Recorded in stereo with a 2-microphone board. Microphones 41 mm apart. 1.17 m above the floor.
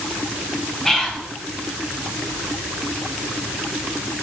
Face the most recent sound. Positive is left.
turn(degrees=10)  # may be behind; listen again after turning